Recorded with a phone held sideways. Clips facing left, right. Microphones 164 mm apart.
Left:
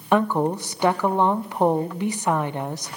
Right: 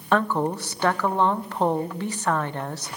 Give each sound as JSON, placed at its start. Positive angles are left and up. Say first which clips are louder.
{"t": 0.1, "sound": "a woman speaking", "louder": "left 2 dB", "side_deg": 15, "distance_m": 0.6}